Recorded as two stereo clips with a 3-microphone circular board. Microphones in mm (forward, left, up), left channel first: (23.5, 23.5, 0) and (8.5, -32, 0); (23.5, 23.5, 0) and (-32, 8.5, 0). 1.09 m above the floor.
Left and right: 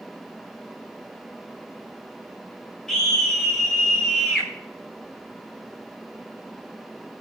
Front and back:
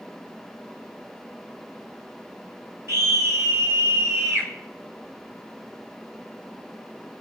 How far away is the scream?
About 5 m.